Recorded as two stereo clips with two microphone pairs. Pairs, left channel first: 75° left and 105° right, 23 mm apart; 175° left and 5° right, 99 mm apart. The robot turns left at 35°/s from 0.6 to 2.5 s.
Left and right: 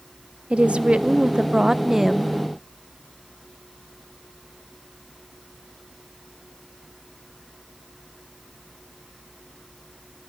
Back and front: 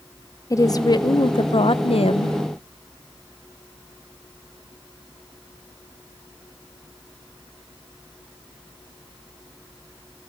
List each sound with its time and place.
0.5 s a woman speaking: 130° right, 0.7 m; by 2.4 s 170° left, 0.7 m